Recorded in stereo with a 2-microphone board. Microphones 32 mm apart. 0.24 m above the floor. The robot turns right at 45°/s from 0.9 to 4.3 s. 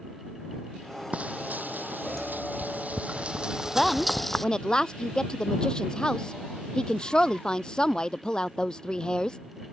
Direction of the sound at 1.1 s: 45° right (ahead or behind).